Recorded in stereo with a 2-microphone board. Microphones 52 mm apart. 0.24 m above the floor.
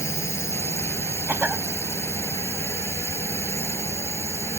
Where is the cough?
35° right (ahead or behind).